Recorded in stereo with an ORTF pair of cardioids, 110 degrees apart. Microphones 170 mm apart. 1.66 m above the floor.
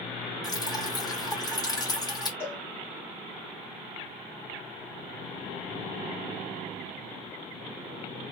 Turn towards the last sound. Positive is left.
turn(degrees=15)